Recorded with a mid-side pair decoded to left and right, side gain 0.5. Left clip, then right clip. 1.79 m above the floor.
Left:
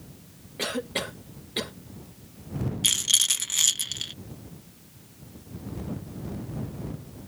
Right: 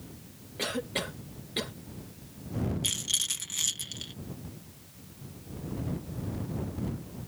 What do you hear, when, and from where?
0.6 s a cough: 20° left
2.8 s a rattle: 50° left